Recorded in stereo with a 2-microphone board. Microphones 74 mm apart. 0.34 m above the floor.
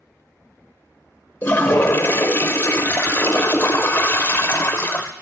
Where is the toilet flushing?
30° left (ahead or behind), 0.6 m.